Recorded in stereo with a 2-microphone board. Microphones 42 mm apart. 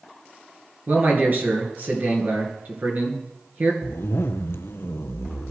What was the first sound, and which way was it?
A man speaking, 45° right (ahead or behind).